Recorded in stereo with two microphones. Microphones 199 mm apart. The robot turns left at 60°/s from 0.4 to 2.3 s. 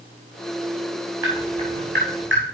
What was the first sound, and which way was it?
Dripping, 20° right (ahead or behind).